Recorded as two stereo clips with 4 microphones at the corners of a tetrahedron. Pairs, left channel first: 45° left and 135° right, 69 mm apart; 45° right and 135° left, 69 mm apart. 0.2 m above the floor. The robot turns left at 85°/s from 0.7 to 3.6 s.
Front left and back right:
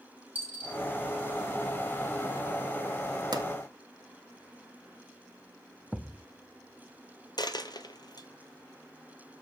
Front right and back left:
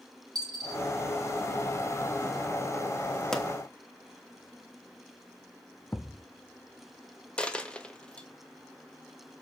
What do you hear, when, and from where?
0.3 s a dropped coin: 160° left, 2.5 m; by 0.8 s 155° left, 2.5 m
3.3 s a pop: 125° right, 1.3 m; by 3.5 s 135° right, 1.3 m
5.9 s a thud: 60° right, 0.7 m
7.4 s a dropped coin: 30° left, 0.8 m